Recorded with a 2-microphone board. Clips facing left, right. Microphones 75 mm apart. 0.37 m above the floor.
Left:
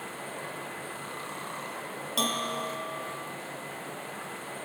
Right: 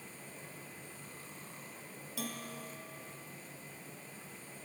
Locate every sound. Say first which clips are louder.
0.0 s running water: left 13 dB; 75° left (ahead or behind)
2.2 s a bell: left 13 dB; 85° left